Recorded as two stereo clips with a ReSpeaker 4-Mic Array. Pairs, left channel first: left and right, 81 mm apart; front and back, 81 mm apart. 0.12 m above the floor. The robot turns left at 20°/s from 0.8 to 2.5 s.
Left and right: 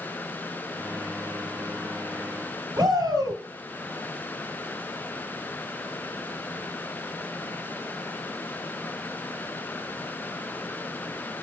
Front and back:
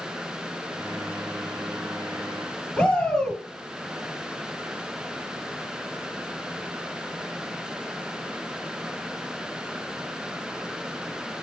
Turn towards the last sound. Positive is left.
turn(degrees=-80)